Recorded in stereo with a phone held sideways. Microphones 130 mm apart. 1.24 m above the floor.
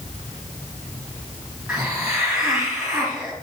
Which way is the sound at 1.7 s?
5° right (ahead or behind).